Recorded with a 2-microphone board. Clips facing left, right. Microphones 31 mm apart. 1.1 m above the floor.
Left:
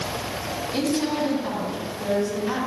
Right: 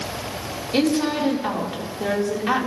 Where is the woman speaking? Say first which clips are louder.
Right 4 dB; 45° right (ahead or behind), 3 m.